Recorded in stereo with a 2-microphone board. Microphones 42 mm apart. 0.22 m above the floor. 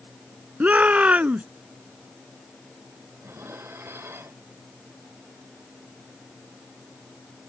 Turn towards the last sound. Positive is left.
turn(degrees=-75)  # may be behind; listen again after turning